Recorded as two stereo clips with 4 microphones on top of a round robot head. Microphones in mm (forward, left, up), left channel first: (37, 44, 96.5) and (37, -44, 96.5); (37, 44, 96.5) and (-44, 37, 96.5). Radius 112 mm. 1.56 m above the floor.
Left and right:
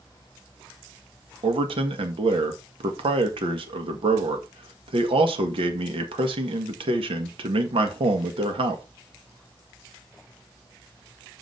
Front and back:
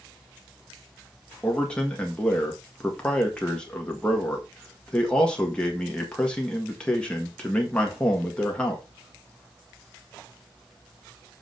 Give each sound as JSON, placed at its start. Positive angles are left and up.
{"t": 1.4, "sound": "a man speaking", "azimuth_deg": -75, "distance_m": 1.6}